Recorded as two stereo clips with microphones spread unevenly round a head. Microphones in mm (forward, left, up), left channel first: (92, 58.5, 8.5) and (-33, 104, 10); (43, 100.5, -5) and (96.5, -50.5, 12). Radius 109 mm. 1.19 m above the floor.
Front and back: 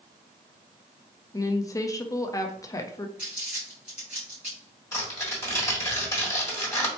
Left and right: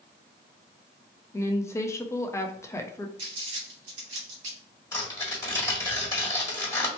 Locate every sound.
1.3 s a woman speaking: 45° left, 0.6 m
3.2 s crumpling: 115° right, 1.0 m
4.9 s tearing paper: 40° left, 1.4 m